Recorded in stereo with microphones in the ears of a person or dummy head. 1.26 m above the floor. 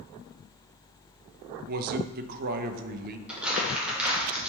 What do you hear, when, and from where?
1.7 s a man speaking: 50° right (ahead or behind), 0.8 m
3.3 s crumpling: centre (ahead or behind), 1.8 m